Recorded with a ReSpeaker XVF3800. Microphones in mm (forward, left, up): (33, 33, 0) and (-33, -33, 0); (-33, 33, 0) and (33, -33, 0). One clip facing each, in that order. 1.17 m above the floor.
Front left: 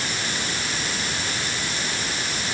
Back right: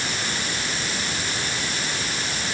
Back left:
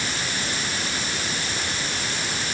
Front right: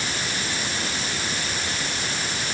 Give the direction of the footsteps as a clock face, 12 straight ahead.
I don't hear footsteps.